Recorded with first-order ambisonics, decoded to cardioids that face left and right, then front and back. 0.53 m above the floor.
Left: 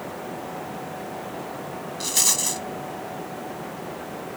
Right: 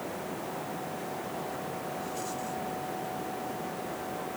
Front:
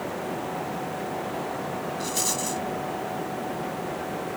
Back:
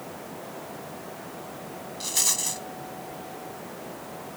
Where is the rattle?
100° left.